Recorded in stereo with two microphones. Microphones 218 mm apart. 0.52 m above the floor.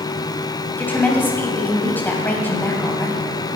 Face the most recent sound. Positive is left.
turn(degrees=10)  # may be behind; listen again after turning